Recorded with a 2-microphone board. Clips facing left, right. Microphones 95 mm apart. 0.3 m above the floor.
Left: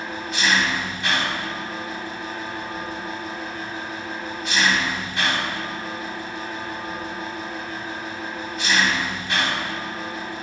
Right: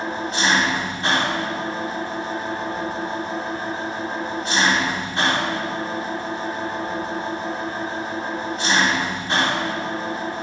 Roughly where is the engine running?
Right.